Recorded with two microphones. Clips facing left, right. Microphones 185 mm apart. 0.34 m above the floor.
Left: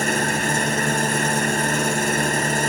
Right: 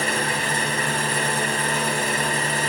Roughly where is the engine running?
Left.